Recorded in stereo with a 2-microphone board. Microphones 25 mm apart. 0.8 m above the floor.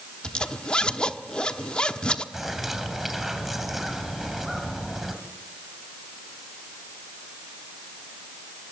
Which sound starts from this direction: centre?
A bird, at 2.3 s.